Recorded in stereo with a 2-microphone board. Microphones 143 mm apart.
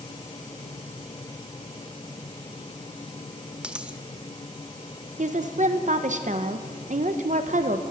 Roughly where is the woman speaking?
Right.